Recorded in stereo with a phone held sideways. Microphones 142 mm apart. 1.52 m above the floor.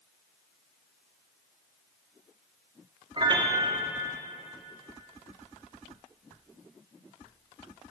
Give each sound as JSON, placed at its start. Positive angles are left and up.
{"t": 3.2, "sound": "a piano", "side_deg": -30, "distance_m": 2.5}